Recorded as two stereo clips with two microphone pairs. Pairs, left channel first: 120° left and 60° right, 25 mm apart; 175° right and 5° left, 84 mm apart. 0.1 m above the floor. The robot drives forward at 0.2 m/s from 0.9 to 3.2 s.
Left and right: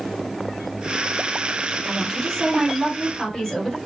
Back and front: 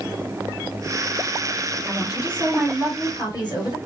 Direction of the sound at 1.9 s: 170° left.